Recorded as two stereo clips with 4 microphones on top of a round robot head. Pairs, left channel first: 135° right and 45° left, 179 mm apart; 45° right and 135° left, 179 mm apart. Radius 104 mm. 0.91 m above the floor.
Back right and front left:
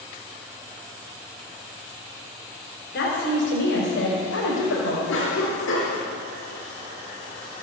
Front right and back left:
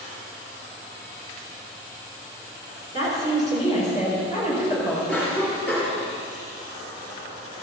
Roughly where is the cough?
Behind right.